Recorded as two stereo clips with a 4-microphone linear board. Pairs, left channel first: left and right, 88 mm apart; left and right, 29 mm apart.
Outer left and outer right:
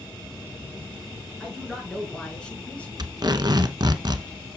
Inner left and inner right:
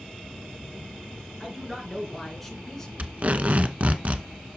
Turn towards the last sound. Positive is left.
turn(degrees=-55)  # may be behind; listen again after turning